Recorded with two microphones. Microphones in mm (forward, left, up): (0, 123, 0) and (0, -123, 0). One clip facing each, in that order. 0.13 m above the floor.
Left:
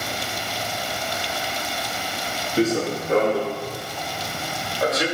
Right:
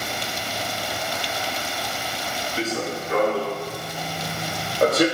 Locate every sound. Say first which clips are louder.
2.6 s running footsteps: left 7 dB; 50° left (ahead or behind), 0.8 m; by 5.1 s 55° right (ahead or behind), 0.8 m